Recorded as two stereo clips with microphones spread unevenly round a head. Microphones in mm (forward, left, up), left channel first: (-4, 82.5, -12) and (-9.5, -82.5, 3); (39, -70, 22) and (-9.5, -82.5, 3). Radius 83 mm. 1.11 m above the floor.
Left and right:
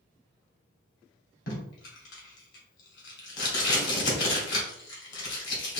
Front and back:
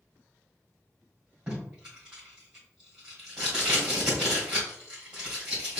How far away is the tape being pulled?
About 1.7 m.